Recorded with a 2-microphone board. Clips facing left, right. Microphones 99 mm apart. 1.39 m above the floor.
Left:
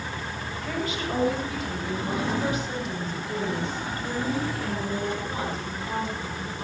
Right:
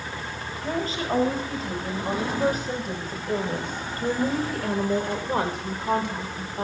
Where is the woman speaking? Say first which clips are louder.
Right 3 dB; 35° right (ahead or behind), 8.5 m; by 6.6 s 70° right (ahead or behind), 6 m.